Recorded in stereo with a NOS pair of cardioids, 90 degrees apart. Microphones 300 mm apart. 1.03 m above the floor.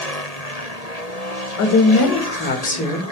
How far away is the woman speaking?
About 1.0 m.